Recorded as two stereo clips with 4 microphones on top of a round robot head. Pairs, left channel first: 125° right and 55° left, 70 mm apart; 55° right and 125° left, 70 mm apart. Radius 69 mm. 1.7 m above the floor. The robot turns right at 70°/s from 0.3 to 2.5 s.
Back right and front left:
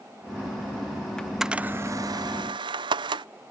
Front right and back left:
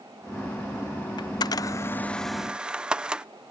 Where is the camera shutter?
45° right; by 3.2 s 45° left.